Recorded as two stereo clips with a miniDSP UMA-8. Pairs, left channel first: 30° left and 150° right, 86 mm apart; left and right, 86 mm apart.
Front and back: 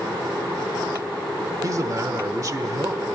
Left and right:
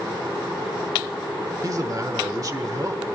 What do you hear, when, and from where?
1.6 s a man speaking: 120° right, 1.2 m